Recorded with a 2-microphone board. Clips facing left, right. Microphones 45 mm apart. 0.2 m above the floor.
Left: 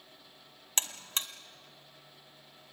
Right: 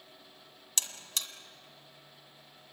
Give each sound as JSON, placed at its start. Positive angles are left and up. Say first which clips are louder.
{"t": 0.8, "sound": "a buzzer", "louder": "left 2 dB", "side_deg": 35, "distance_m": 1.4}